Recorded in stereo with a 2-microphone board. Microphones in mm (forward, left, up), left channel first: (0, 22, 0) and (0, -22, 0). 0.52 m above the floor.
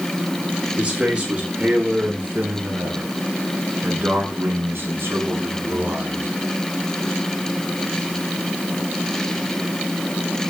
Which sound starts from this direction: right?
A man speaking, at 0.8 s.